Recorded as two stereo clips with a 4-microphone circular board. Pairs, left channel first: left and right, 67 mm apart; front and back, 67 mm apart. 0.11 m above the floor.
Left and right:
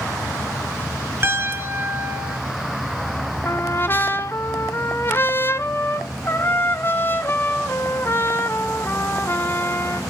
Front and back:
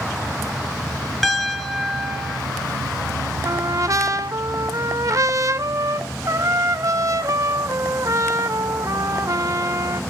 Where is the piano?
85° right, 1.5 m.